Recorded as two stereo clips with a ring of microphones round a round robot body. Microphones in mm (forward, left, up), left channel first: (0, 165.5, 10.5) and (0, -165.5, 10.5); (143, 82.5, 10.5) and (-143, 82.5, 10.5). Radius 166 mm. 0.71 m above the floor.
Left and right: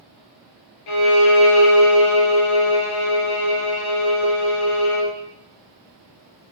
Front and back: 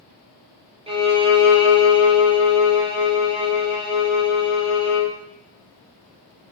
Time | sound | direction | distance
0.9 | a violin | 110° left | 3 m